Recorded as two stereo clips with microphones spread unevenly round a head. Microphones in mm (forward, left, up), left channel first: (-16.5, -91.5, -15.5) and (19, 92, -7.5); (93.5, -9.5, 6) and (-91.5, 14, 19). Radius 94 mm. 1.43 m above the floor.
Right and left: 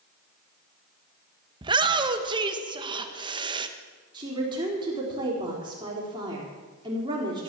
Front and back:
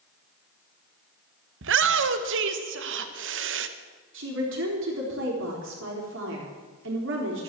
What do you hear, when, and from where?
1.6 s a shout: 145° left, 1.2 m
4.1 s a woman speaking: 145° left, 3.5 m